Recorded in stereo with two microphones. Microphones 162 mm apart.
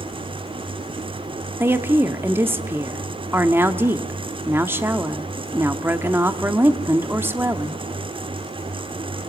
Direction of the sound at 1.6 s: 15° right (ahead or behind).